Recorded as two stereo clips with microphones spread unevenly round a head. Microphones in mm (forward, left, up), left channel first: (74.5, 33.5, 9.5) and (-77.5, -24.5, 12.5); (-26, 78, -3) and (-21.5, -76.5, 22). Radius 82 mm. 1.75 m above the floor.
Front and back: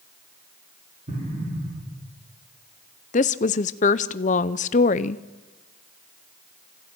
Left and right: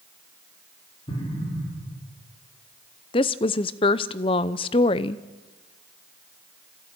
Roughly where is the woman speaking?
Ahead left.